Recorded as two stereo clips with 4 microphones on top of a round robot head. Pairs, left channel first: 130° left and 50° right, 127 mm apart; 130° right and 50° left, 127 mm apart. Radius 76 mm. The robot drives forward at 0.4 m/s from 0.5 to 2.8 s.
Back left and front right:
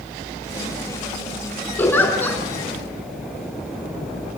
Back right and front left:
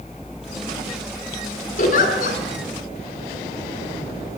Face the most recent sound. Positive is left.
turn(degrees=-155)